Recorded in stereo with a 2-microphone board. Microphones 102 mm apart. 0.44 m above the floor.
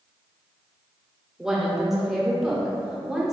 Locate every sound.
1.4 s a woman speaking: 5° right (ahead or behind), 0.8 m